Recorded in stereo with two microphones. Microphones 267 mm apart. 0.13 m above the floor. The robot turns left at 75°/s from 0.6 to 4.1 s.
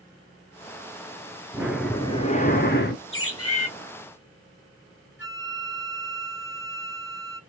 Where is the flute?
45° left (ahead or behind), 1.3 m.